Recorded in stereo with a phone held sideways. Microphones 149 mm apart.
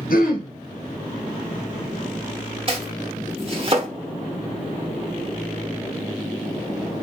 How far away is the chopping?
About 1.0 m.